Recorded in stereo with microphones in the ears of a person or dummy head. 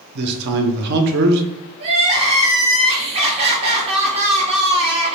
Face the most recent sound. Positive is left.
turn(degrees=-35)  # may be behind; listen again after turning